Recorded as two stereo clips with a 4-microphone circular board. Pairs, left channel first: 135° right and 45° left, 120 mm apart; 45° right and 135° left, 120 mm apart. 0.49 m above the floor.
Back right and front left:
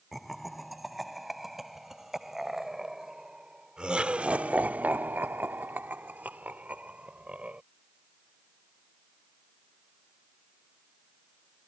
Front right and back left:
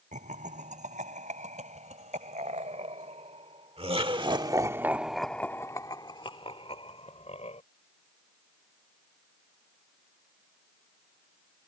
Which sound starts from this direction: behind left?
Laughter, at 0.1 s.